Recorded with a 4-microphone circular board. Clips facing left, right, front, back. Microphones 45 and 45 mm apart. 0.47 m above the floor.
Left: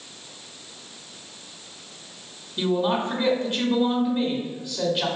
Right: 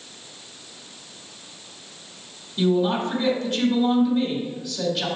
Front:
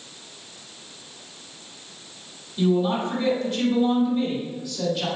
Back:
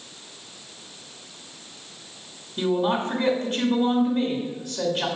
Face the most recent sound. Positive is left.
turn(degrees=155)